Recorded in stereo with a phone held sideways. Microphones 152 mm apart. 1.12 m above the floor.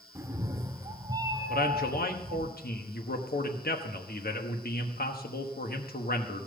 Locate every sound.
0.1 s a cat meowing: 20° right (ahead or behind), 0.8 m; by 2.5 s 25° right (ahead or behind), 1.8 m
1.5 s a man speaking: 85° left, 1.2 m